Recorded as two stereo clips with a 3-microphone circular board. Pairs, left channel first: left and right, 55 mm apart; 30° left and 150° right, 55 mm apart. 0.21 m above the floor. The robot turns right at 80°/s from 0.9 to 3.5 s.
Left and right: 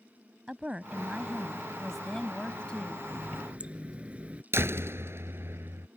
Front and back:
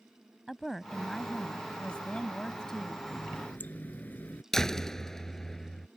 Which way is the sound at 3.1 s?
60° right.